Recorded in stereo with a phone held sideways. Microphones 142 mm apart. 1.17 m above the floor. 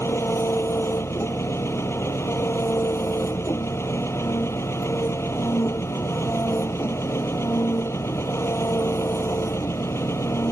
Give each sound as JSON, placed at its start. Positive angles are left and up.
{"t": 0.0, "sound": "an engine running", "side_deg": 20}